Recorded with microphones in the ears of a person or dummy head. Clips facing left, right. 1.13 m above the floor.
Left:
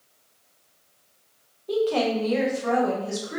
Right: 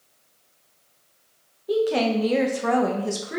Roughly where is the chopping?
No chopping in this recording.